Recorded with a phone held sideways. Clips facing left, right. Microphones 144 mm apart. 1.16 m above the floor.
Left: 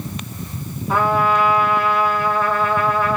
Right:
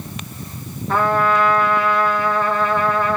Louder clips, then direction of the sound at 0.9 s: Even; 10° left (ahead or behind).